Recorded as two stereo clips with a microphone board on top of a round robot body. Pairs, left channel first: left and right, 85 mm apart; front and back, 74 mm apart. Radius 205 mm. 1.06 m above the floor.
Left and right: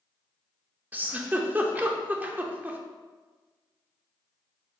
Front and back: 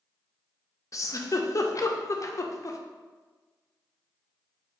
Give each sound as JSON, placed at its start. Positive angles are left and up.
{"t": 0.9, "sound": "a giggle", "azimuth_deg": -25, "distance_m": 0.7}